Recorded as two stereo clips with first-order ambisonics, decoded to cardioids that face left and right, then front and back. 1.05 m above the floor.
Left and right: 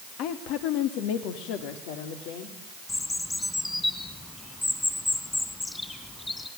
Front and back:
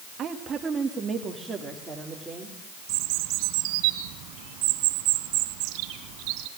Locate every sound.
0.2 s a woman speaking: 120° left, 1.6 m; by 2.5 s 90° left, 3.5 m
2.9 s a bird: 170° left, 2.5 m